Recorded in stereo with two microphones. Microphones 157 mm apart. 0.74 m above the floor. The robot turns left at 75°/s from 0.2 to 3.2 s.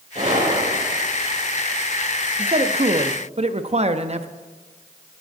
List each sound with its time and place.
0.1 s a gunshot: 45° right, 6.5 m; by 0.9 s 100° right, 6.5 m
2.4 s a man speaking: 50° right, 0.6 m; by 4.3 s 110° right, 0.6 m